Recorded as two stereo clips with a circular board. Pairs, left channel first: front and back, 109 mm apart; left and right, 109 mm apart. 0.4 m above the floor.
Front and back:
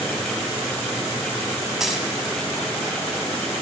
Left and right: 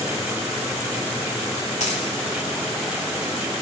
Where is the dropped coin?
90° left, 0.8 m.